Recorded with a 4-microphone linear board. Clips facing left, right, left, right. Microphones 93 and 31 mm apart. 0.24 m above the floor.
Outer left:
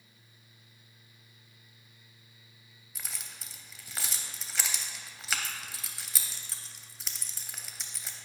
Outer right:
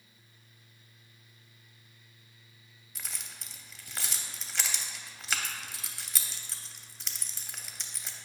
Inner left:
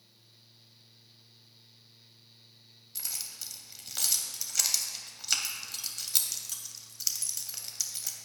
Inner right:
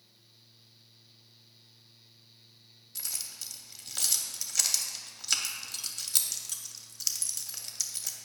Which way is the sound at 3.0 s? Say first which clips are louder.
Even, even; centre (ahead or behind).